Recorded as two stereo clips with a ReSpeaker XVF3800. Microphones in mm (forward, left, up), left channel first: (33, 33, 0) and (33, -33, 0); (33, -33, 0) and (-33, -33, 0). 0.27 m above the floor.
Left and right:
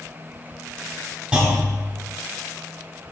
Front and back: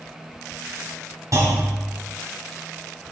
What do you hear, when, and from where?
1.3 s a clunk: 160° right, 2 m